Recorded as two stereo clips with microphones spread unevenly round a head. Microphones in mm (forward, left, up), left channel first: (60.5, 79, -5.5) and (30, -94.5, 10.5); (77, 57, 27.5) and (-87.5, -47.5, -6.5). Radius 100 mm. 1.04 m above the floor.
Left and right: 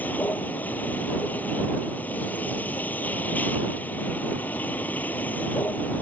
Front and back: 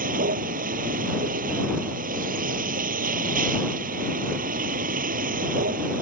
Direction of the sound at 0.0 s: 165° left.